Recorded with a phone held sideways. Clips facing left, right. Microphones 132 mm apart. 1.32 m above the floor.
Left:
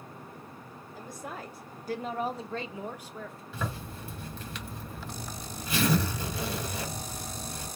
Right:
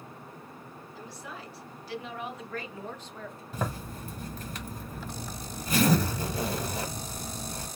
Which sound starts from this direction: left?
A woman speaking, at 0.9 s.